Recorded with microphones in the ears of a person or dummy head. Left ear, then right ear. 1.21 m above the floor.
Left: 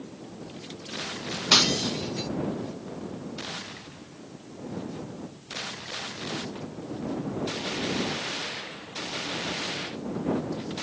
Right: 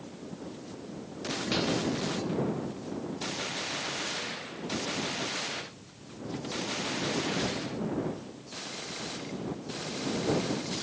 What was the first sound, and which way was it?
Breaking glass, 45° left (ahead or behind).